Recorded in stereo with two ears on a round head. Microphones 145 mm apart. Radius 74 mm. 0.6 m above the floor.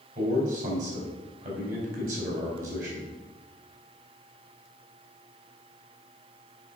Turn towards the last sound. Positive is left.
turn(degrees=-50)  # may be behind; listen again after turning